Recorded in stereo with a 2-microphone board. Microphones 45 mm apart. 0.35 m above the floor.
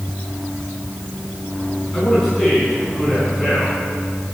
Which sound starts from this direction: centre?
A man speaking, at 1.9 s.